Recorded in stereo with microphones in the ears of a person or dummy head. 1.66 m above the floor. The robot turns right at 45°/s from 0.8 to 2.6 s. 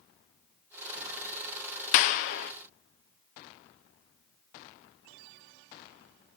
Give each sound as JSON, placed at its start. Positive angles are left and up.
{"t": 1.9, "sound": "a clap", "side_deg": 50, "distance_m": 0.5}